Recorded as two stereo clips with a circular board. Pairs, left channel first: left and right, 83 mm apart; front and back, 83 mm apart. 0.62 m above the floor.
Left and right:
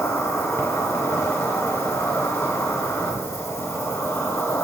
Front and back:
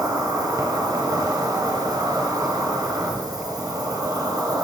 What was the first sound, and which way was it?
An insect, 150° left.